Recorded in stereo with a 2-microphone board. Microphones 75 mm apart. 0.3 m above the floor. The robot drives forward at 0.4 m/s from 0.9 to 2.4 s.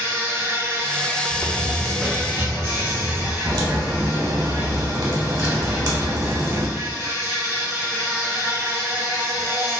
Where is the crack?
60° right (ahead or behind), 0.7 m.